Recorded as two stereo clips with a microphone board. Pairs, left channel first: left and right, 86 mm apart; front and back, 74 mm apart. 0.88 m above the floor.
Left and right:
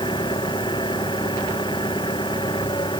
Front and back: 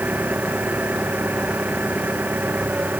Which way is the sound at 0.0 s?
115° left.